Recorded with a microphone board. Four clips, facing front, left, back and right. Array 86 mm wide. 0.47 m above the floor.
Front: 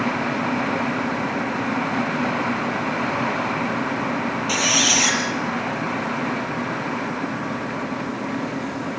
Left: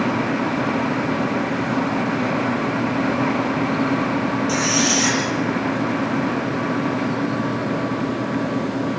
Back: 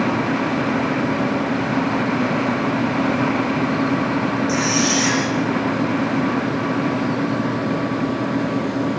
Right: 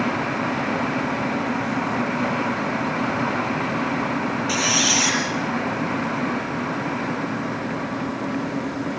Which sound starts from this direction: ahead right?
A squeak, at 4.5 s.